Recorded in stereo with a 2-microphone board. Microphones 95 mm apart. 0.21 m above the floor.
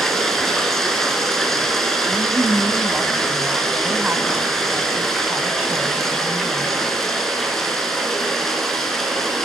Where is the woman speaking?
15° right (ahead or behind), 1.0 m.